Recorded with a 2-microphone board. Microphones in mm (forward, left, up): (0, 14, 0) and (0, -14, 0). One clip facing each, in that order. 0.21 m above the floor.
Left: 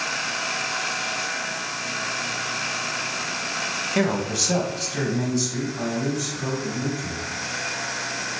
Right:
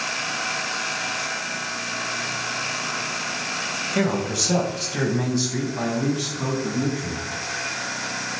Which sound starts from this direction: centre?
A man speaking, at 3.9 s.